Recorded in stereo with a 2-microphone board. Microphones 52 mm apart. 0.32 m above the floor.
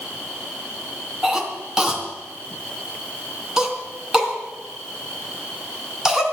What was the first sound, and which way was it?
A cough, 10° right (ahead or behind).